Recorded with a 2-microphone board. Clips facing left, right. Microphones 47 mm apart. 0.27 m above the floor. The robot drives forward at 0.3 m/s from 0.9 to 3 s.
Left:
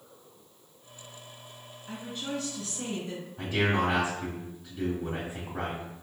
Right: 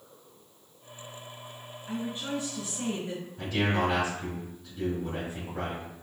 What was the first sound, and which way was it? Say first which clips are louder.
A woman speaking: right 3 dB; 25° right (ahead or behind).